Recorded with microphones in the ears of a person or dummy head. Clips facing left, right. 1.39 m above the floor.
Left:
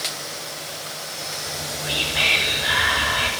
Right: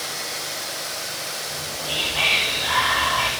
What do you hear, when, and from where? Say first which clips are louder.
1.5 s whispering: left 3 dB; 25° left (ahead or behind), 6.5 m